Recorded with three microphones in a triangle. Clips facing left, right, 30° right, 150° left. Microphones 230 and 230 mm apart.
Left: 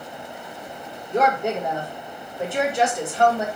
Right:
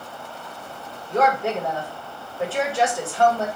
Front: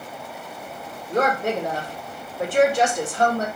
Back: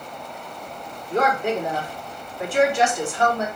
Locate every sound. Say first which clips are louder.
1.1 s a woman speaking: even, even; 15° left, 2.0 m